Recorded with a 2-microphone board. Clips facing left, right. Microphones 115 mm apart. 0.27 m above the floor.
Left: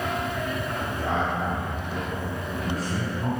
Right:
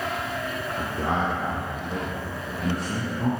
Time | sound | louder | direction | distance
0.8 | a man speaking | right 2 dB | 60° right (ahead or behind) | 3.5 m